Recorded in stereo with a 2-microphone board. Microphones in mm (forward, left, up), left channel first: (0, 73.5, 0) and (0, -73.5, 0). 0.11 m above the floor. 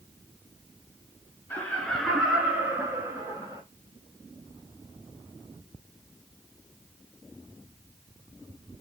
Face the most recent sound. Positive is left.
turn(degrees=-25)  # may be behind; listen again after turning